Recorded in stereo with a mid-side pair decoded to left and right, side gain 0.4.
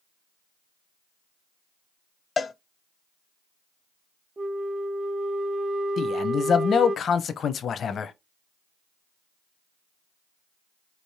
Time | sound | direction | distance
2.4 | a cowbell | 40° left | 0.6 m
4.4 | a flute | 30° right | 0.6 m
6.0 | a man speaking | 60° left | 0.7 m